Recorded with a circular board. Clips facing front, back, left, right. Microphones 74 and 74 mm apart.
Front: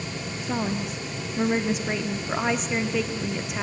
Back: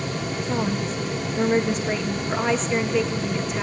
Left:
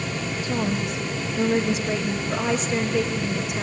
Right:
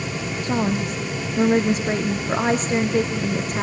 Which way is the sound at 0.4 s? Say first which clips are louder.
Back 1 dB, right 4 dB; 85° right.